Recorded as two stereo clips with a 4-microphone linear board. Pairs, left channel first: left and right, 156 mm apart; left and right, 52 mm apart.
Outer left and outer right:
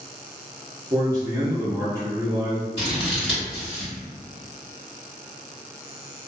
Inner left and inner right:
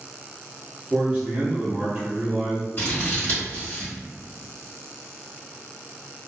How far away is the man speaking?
About 0.7 m.